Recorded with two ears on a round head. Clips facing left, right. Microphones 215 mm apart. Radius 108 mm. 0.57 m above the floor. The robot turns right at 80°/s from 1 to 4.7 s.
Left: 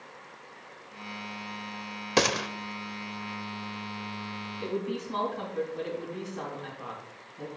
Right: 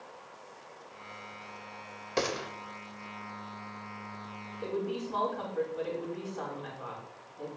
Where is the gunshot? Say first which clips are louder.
Left 5 dB; 70° left (ahead or behind), 0.6 m; by 2.5 s 65° left (ahead or behind), 0.6 m.